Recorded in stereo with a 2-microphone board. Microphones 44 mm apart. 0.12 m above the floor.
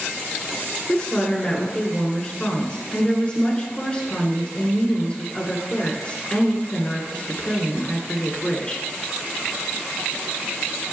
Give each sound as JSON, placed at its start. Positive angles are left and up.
{"t": 0.9, "sound": "a woman speaking", "side_deg": 25, "distance_m": 1.3}